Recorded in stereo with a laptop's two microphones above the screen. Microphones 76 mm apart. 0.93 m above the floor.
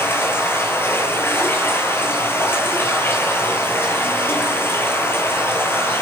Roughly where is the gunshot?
I don't hear a gunshot.